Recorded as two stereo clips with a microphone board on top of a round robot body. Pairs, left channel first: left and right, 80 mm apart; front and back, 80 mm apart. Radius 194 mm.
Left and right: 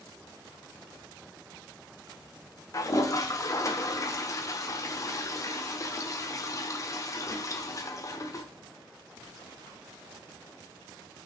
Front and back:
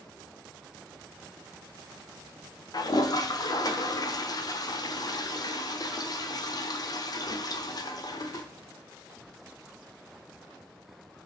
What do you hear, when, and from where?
2.7 s a toilet flushing: 40° left, 1.1 m